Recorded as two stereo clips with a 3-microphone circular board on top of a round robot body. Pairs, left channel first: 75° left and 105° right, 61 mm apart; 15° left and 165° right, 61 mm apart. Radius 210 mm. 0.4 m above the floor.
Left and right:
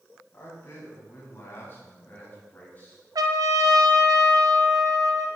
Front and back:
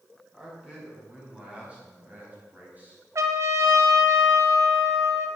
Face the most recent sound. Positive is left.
turn(degrees=-125)